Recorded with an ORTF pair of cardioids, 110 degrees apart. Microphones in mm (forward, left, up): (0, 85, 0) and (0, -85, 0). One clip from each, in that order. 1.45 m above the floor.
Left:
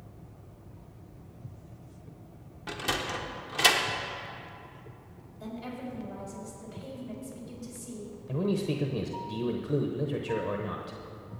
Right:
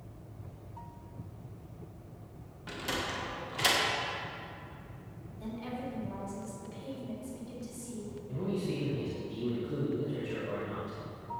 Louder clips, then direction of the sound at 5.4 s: Even; 15° left.